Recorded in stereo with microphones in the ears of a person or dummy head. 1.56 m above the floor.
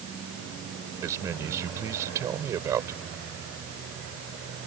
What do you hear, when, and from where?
1.0 s a man speaking: 20° right (ahead or behind)